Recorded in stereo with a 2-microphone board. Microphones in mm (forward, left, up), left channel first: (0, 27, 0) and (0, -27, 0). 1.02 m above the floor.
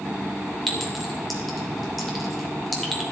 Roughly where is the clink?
Centre.